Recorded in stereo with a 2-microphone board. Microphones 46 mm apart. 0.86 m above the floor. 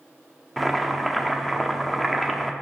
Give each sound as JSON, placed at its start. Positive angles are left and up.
{"t": 0.6, "sound": "boiling", "side_deg": 0, "distance_m": 0.8}